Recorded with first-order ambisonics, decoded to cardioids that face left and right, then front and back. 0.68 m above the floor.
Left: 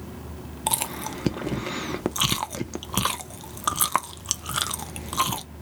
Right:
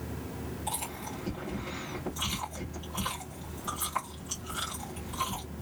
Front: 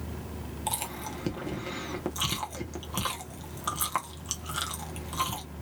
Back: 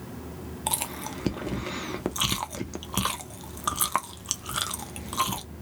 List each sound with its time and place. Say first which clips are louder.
0.7 s chewing: left 10 dB, back 3 dB; 110° left, 0.5 m